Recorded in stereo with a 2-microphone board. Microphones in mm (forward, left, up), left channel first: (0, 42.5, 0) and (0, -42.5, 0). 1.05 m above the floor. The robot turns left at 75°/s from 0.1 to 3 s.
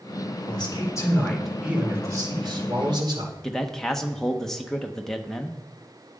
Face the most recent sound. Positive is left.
turn(degrees=5)  # may be behind; listen again after turning